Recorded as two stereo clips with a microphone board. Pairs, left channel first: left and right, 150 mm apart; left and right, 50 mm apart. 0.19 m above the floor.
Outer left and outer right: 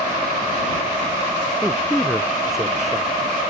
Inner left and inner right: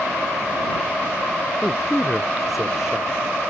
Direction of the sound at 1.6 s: 5° right (ahead or behind).